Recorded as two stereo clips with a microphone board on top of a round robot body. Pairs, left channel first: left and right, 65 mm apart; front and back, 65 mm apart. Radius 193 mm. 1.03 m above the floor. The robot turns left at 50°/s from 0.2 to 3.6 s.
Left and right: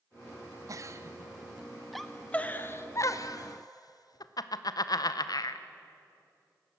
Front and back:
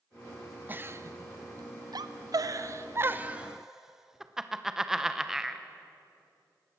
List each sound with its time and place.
0.7 s a giggle: 115° right, 1.0 m; by 5.7 s 100° left, 1.0 m